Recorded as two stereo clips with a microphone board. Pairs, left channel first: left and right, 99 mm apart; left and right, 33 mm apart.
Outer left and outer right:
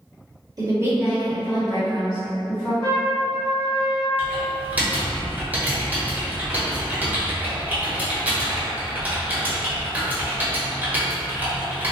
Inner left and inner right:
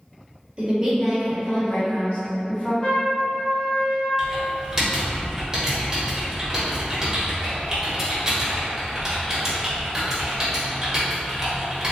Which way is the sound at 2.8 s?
45° left (ahead or behind).